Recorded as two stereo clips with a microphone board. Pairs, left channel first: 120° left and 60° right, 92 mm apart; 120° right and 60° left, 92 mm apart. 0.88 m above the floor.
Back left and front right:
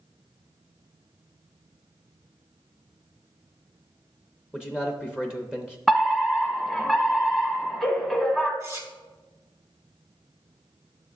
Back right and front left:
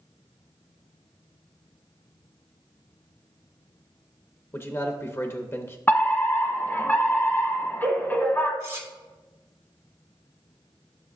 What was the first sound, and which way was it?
A man speaking, 125° right.